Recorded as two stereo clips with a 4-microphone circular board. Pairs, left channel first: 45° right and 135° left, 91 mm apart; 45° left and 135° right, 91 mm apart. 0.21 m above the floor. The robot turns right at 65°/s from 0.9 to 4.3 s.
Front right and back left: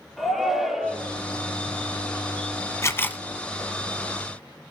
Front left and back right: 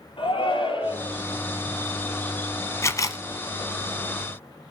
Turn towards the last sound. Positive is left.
turn(degrees=95)